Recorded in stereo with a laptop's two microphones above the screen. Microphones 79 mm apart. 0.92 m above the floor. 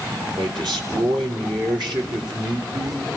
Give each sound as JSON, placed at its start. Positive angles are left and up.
{"t": 0.4, "sound": "a man speaking", "side_deg": -75, "distance_m": 3.5}